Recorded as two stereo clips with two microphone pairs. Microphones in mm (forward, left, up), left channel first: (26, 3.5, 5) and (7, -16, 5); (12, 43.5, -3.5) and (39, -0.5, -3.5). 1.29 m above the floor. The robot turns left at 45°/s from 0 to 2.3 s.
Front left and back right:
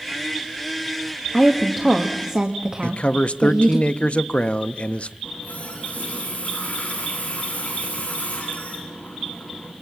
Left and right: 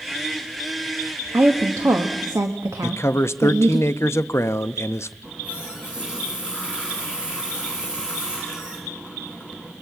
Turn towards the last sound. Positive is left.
turn(degrees=15)